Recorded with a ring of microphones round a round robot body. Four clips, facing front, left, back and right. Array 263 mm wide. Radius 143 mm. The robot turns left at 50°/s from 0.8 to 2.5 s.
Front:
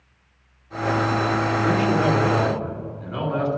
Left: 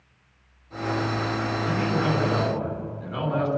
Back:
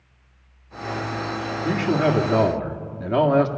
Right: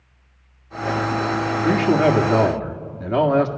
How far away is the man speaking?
About 2 m.